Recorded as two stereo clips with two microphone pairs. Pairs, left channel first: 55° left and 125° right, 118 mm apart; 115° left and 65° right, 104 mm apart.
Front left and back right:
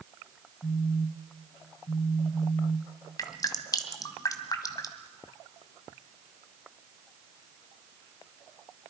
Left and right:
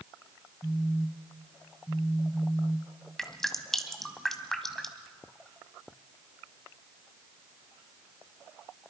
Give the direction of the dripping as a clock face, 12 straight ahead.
11 o'clock.